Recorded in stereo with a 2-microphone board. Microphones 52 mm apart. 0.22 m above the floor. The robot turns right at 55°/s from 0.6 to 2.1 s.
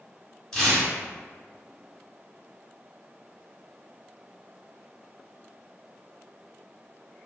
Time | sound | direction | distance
0.5 | tearing paper | 15° left (ahead or behind) | 0.8 m